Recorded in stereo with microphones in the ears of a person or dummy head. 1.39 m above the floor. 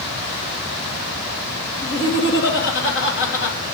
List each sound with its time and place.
1.8 s laughter: 60° left (ahead or behind), 1.9 m